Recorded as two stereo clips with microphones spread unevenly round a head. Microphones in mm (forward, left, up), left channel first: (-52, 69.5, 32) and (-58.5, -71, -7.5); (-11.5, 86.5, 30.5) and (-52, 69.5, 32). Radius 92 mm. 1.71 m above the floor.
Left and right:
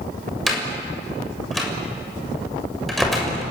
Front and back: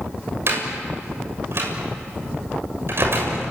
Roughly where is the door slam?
Behind.